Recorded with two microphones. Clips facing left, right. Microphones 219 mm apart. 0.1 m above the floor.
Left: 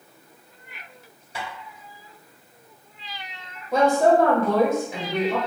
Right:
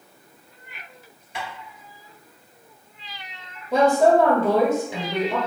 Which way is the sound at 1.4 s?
35° left (ahead or behind).